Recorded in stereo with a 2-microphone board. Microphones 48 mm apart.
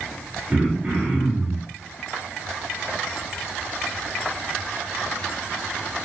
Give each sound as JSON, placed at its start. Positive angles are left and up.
{"t": 0.5, "sound": "throat clearing", "side_deg": -25, "distance_m": 1.4}